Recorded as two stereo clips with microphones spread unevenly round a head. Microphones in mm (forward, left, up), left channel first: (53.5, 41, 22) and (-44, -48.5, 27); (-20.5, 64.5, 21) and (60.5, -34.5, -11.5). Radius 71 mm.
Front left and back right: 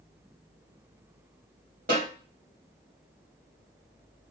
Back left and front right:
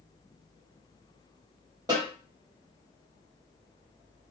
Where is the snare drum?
115° right, 3 m.